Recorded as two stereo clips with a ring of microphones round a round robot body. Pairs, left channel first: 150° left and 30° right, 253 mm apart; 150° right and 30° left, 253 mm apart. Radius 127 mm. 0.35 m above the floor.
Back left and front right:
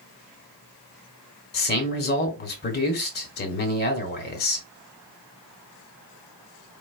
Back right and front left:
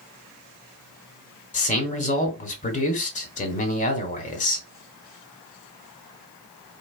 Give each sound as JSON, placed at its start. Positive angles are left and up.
{"t": 1.5, "sound": "a man speaking", "azimuth_deg": 170, "distance_m": 1.4}